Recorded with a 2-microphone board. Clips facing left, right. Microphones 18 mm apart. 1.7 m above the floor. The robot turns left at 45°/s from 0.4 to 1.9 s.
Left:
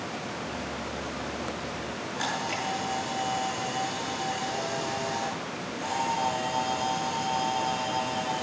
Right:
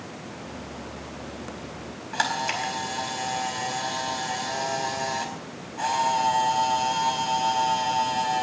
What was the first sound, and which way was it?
A camera shutter, 60° right (ahead or behind).